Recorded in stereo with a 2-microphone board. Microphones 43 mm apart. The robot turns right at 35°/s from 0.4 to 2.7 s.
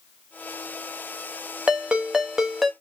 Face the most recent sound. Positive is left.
turn(degrees=5)